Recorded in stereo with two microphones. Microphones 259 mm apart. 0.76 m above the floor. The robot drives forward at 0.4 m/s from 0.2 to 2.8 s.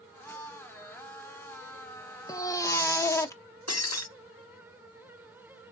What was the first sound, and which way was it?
A baby crying, 15° left (ahead or behind).